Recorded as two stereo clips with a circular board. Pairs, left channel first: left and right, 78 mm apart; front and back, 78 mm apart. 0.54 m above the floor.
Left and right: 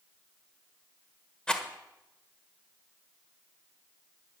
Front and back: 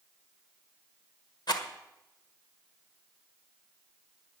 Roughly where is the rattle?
Ahead.